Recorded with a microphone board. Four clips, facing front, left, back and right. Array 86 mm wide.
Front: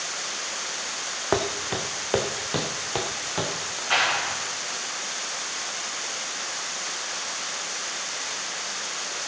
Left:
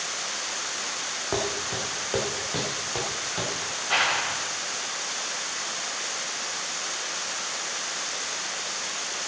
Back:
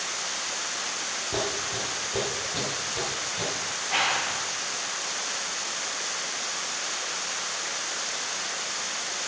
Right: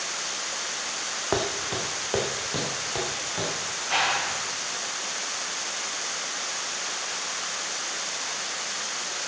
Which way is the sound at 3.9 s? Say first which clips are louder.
Even, front 3 dB; 10° left.